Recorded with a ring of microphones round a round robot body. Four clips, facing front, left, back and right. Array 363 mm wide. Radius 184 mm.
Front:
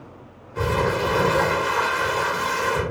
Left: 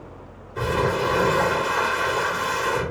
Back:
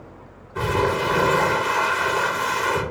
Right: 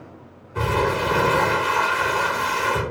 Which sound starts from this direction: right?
Crumpling, at 0.6 s.